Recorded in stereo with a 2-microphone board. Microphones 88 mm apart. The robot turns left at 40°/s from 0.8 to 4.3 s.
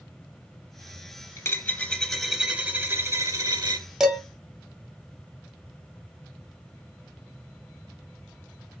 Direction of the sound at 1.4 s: 35° left.